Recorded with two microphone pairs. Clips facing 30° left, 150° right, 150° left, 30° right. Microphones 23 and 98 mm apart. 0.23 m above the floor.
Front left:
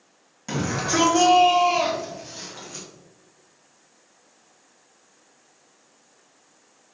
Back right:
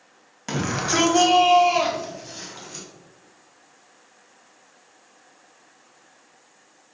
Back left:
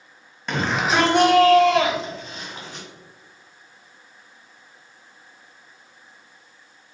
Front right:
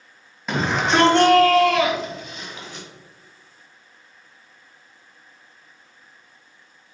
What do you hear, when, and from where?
0.5 s a shout: 110° right, 1.1 m; by 2.9 s 135° left, 1.3 m